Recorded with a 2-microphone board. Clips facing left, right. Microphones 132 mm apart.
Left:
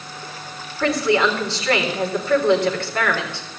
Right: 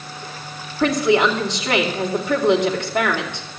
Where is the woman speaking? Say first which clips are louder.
Right 2 dB; 20° right (ahead or behind), 3.5 m.